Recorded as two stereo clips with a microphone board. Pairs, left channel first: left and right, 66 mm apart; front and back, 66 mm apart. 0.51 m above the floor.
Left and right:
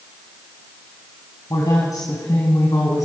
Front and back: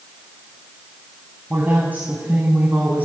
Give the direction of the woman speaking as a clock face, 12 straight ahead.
8 o'clock.